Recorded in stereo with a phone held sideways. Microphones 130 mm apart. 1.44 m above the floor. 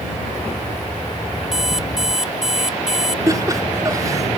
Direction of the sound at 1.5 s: 5° right (ahead or behind).